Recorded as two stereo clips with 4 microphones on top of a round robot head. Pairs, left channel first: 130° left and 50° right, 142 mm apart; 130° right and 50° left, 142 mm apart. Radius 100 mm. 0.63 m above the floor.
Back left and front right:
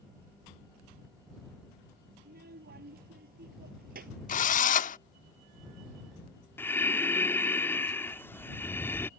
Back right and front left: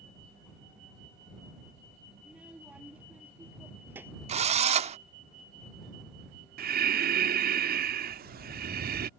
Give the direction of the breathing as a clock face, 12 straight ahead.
10 o'clock.